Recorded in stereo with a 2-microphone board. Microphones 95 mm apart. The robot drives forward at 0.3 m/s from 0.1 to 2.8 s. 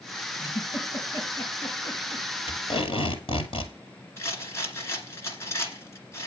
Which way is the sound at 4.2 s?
30° left (ahead or behind).